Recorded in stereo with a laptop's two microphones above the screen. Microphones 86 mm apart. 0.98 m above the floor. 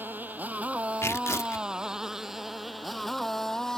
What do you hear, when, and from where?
0.0 s a motorcycle: 20° right (ahead or behind); by 3.8 s 5° left (ahead or behind)
1.0 s tearing paper: 35° left (ahead or behind)